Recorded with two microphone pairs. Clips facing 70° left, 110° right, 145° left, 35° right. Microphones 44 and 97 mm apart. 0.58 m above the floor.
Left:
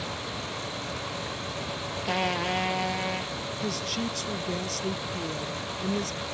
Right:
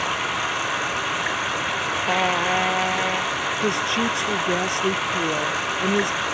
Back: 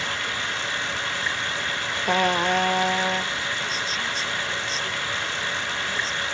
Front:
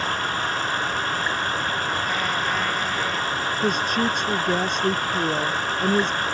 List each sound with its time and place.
0.0 s running water: 80° right
2.0 s a trumpet: 175° right
3.6 s a woman speaking: 65° right